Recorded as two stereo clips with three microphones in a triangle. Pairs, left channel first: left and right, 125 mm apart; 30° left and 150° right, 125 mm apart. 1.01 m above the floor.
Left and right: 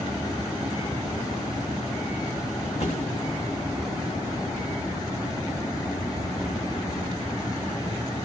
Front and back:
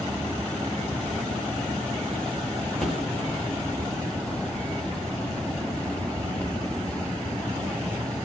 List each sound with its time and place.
2.8 s a thud: 115° left, 6 m